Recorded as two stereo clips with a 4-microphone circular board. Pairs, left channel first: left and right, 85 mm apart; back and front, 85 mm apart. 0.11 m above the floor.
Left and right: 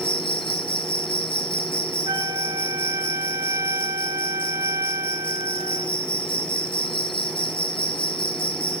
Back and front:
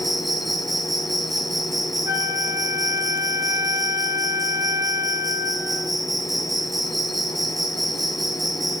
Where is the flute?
45° right, 4.5 m.